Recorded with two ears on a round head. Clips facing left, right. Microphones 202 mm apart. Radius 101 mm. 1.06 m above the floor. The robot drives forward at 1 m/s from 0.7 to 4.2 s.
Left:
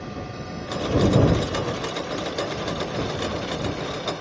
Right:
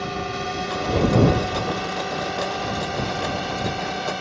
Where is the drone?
75° right (ahead or behind); by 4.2 s 80° right.